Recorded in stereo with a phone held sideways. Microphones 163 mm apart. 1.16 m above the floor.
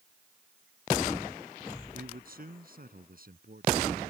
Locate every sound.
1.9 s a man speaking: 60° right (ahead or behind)